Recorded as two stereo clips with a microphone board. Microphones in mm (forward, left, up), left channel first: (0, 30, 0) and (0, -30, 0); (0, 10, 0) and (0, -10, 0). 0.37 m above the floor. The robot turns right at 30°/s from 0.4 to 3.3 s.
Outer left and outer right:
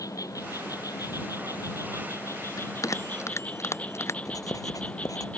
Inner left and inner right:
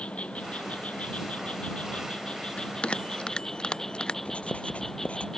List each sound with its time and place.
0.0 s an insect: 70° left; by 5.4 s 160° left
2.6 s a bell: 70° left (ahead or behind); by 4.2 s 50° left (ahead or behind)
4.2 s writing: 70° left (ahead or behind)